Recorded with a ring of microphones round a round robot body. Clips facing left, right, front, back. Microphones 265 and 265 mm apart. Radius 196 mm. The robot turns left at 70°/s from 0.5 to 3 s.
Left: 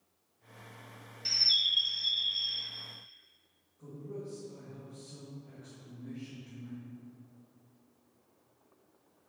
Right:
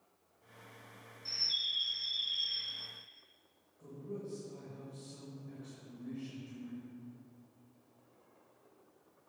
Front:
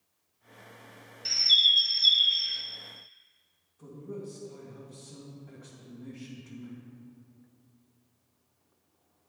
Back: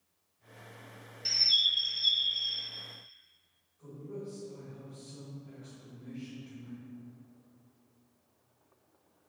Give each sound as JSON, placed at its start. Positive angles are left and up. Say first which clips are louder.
{"t": 1.2, "sound": "a bird", "louder": "left 4 dB, front 2 dB", "azimuth_deg": 90, "distance_m": 0.7}
{"t": 3.8, "sound": "a man speaking", "louder": "left 1 dB, front 2 dB", "azimuth_deg": 0, "distance_m": 2.0}